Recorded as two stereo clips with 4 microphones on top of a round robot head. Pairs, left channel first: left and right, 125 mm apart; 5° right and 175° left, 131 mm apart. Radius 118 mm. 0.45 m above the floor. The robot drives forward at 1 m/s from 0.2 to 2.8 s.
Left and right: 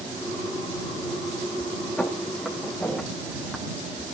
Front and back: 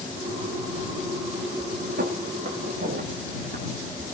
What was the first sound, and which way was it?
Footsteps, 175° left.